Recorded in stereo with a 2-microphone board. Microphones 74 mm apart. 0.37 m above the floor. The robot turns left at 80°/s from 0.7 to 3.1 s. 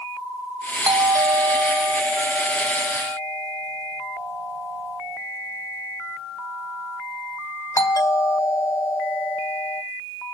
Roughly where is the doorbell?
Right.